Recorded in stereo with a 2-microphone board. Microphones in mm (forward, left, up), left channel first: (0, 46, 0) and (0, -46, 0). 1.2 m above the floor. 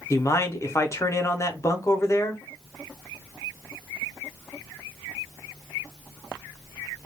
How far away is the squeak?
No squeak in this recording.